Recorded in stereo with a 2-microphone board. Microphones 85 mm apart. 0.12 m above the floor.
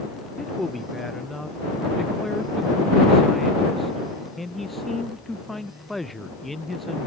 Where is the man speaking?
Centre (ahead or behind).